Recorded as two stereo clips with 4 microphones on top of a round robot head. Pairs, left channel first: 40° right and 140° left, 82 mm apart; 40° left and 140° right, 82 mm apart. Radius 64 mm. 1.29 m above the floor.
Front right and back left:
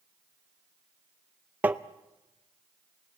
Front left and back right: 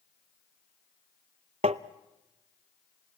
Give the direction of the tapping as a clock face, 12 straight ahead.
5 o'clock.